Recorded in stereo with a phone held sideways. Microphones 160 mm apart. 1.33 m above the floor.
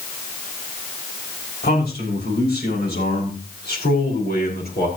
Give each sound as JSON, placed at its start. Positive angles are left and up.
{"t": 1.6, "sound": "a man speaking", "side_deg": 90, "distance_m": 7.0}